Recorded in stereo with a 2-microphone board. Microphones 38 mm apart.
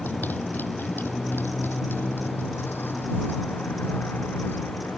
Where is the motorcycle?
60° left (ahead or behind); by 5.0 s 90° left.